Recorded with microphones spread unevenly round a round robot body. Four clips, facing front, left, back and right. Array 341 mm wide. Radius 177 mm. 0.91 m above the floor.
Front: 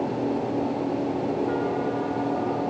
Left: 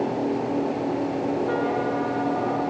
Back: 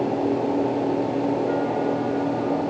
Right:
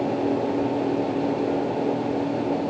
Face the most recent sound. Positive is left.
No sound to turn to.